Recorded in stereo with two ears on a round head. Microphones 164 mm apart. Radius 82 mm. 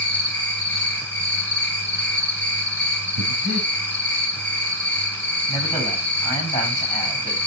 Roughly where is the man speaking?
Centre.